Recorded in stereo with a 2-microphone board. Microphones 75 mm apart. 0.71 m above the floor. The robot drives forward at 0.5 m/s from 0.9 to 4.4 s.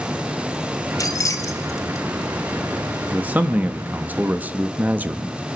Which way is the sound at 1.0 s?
50° left (ahead or behind).